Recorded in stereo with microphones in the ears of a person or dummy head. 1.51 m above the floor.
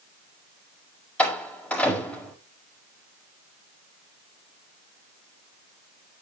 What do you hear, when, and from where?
1.2 s a door slam: 10° left (ahead or behind), 4.5 m